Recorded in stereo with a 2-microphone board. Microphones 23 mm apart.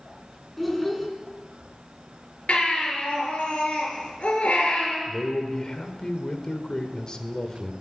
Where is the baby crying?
60° left (ahead or behind), 4.5 m.